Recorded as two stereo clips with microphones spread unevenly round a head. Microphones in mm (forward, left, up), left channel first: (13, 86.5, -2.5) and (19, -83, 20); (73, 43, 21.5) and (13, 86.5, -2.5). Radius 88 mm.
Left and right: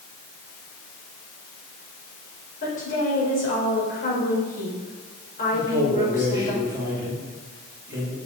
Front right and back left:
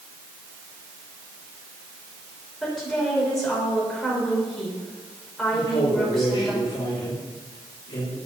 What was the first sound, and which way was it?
A woman speaking, 50° left.